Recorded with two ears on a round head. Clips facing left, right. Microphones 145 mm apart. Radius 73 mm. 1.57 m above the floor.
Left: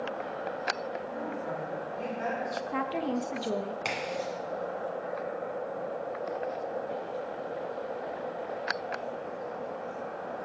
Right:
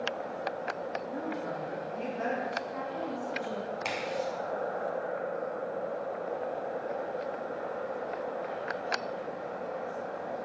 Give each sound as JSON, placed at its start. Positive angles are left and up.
{"t": 1.1, "sound": "a woman speaking", "side_deg": -60, "distance_m": 2.5}
{"t": 2.5, "sound": "a woman speaking", "side_deg": 75, "distance_m": 0.5}
{"t": 3.9, "sound": "a crack", "side_deg": 0, "distance_m": 1.9}